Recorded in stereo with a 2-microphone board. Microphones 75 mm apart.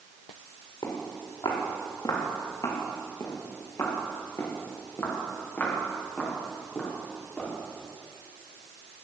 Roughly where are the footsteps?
Left.